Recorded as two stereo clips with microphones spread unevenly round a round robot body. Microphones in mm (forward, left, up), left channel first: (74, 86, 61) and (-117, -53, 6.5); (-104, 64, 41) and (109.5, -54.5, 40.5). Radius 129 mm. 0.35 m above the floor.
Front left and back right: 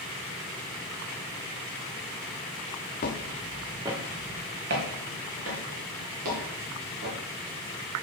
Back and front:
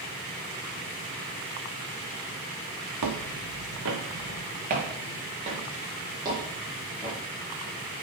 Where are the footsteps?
20° right, 1.4 m; by 7.2 s 110° right, 5.5 m.